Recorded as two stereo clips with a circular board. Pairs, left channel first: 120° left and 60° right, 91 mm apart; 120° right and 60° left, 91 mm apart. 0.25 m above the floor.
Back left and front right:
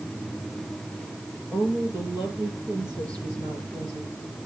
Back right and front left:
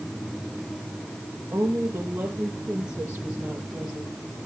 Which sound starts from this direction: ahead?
A woman speaking, at 1.5 s.